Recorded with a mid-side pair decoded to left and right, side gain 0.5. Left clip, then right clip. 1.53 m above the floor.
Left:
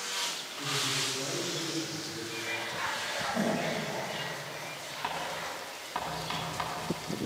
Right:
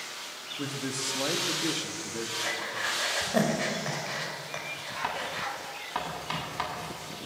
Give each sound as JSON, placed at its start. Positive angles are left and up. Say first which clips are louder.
{"t": 0.6, "sound": "a man speaking", "louder": "left 3 dB", "azimuth_deg": -60, "distance_m": 3.0}
{"t": 2.4, "sound": "breathing", "louder": "right 2 dB", "azimuth_deg": -65, "distance_m": 4.5}
{"t": 5.0, "sound": "writing", "louder": "right 2 dB", "azimuth_deg": -25, "distance_m": 8.5}